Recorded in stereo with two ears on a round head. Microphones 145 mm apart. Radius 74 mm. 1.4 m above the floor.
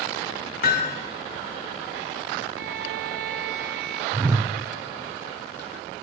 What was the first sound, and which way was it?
Hammering, 65° left (ahead or behind).